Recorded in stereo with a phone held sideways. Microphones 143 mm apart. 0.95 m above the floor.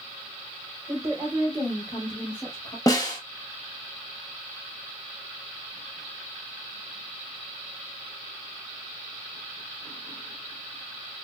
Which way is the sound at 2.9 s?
25° left (ahead or behind).